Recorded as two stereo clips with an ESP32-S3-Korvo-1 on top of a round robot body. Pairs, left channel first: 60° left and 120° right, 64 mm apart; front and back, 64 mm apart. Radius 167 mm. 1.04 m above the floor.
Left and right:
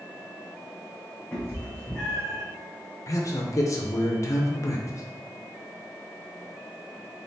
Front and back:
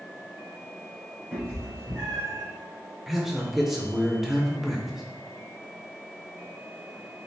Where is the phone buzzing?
I don't hear a phone buzzing.